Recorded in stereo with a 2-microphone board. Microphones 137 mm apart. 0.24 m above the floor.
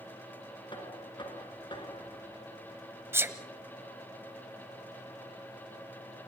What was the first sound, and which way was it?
Knocking, 35° left (ahead or behind).